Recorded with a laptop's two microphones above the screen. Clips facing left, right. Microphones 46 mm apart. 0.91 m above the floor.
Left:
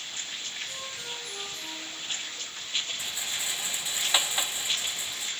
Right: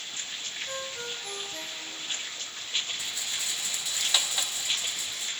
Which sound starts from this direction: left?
A rattle, at 3.0 s.